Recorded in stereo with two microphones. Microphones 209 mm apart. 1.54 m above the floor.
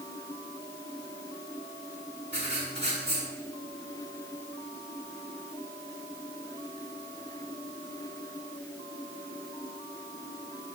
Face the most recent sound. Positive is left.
turn(degrees=-60)  # may be behind; listen again after turning